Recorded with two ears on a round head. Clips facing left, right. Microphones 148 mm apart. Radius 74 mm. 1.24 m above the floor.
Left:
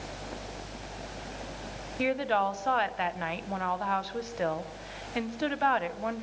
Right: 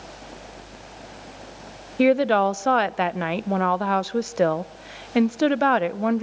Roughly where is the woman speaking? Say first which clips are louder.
Right 10 dB; right.